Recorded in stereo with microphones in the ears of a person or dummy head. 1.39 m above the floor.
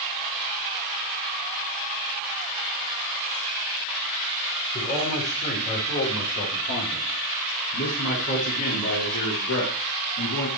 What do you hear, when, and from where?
4.7 s a man speaking: 35° left (ahead or behind), 4.5 m; by 10.5 s 75° left (ahead or behind), 3.5 m